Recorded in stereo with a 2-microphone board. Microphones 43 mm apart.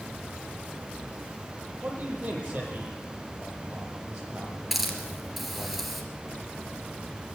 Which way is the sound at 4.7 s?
5° right (ahead or behind).